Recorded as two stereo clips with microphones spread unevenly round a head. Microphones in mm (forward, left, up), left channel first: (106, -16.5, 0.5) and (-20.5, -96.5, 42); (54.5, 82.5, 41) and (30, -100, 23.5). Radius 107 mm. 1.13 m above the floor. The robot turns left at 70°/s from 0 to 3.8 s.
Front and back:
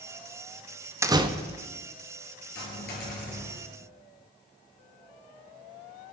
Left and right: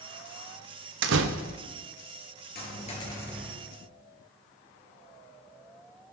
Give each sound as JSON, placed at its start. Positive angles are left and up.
{"t": 1.0, "sound": "a door slam", "azimuth_deg": -80, "distance_m": 1.0}
{"t": 2.5, "sound": "a dropped coin", "azimuth_deg": 55, "distance_m": 4.5}